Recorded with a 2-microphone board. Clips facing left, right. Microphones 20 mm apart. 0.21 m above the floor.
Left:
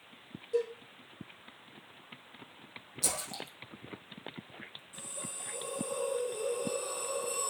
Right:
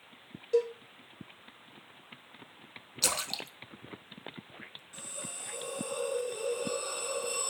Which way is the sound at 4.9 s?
40° right (ahead or behind).